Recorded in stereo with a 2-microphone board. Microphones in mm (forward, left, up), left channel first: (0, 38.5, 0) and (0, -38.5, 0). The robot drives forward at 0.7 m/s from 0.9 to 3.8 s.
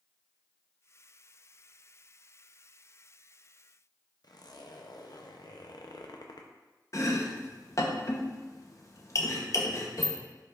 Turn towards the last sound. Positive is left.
turn(degrees=45)  # may be behind; listen again after turning